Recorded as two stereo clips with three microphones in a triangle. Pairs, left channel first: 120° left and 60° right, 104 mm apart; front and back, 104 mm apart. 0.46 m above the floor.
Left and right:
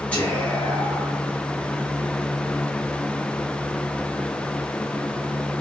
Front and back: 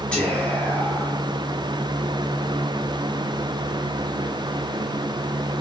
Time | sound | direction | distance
0.1 | whispering | 65° left | 1.0 m